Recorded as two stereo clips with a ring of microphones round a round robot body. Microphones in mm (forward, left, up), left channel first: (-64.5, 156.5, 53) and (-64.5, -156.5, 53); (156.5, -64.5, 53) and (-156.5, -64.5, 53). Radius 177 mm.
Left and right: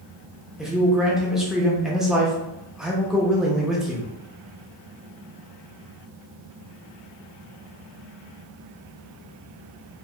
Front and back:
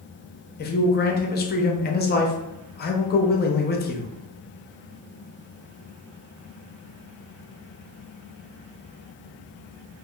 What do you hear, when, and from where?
0.6 s a man speaking: 5° right, 0.5 m